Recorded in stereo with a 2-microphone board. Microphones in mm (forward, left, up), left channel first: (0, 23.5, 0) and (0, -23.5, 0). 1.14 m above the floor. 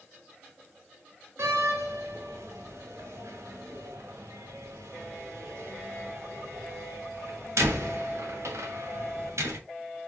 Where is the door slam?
80° right, 1.0 m.